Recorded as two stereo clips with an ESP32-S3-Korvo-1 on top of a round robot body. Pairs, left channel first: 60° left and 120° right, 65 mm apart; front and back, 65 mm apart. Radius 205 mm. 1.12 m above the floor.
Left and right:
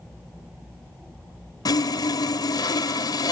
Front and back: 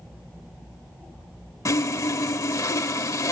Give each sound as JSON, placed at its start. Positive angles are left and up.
{"t": 1.6, "sound": "sawing", "azimuth_deg": 40, "distance_m": 1.0}